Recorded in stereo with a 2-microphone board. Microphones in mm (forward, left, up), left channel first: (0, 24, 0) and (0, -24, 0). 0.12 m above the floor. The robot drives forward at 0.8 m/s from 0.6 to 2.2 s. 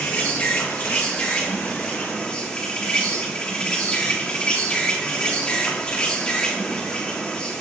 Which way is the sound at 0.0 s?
30° left (ahead or behind).